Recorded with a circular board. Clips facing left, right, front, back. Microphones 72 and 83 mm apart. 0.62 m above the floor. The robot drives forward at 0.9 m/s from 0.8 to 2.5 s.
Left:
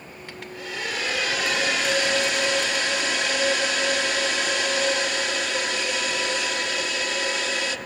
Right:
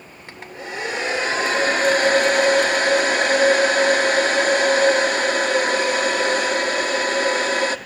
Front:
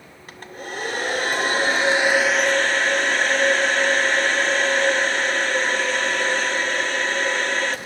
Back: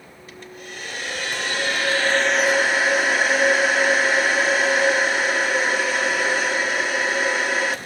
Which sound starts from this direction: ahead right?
A hair dryer, at 0.3 s.